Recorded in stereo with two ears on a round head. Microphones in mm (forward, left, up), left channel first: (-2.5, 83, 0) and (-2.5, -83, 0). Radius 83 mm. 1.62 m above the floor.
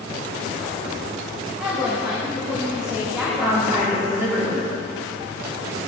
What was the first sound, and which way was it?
A woman speaking, 5° right (ahead or behind).